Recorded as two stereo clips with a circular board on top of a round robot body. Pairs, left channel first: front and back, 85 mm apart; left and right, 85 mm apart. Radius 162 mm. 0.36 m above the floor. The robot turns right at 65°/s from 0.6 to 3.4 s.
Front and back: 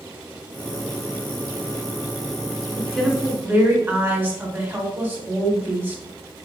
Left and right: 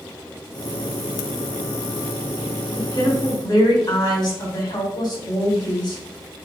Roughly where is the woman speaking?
Left.